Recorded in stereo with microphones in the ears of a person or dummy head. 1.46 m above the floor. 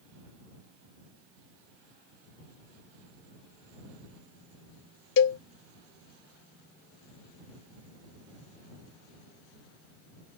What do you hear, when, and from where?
5.2 s a cowbell: 60° left (ahead or behind)